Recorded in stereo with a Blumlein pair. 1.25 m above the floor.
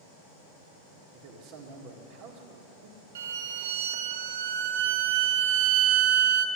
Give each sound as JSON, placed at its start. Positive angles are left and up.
{"t": 1.1, "sound": "a man speaking", "azimuth_deg": -45, "distance_m": 2.0}
{"t": 3.1, "sound": "a violin", "azimuth_deg": -55, "distance_m": 0.6}